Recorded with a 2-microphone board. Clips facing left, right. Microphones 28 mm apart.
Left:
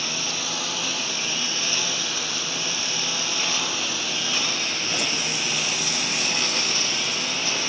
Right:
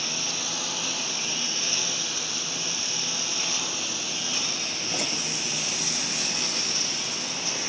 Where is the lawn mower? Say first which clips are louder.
Left 3 dB; 15° left (ahead or behind); by 7.7 s 35° left (ahead or behind).